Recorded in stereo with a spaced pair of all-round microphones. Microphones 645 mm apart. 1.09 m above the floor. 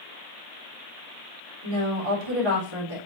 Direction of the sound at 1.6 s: 40° right (ahead or behind).